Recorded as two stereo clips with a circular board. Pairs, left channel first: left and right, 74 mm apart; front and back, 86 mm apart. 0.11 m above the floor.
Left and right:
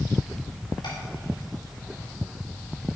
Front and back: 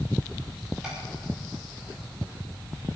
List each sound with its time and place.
0.8 s tapping: 100° left, 5.5 m